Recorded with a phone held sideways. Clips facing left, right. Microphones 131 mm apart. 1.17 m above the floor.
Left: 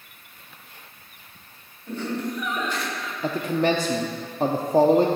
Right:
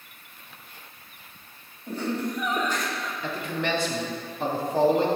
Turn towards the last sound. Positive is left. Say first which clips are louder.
# left 8 dB
turn(degrees=35)  # may be behind; listen again after turning